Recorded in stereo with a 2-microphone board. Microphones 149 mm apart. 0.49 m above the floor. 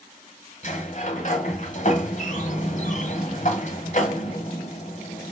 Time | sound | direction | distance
0.6 | a sliding door | 50° left (ahead or behind) | 1.3 m